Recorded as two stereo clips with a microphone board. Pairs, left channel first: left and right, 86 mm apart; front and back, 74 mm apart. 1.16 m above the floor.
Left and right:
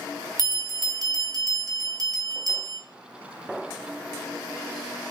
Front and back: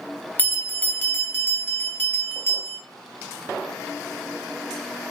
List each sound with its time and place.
0.4 s a bell: 60° right, 1.0 m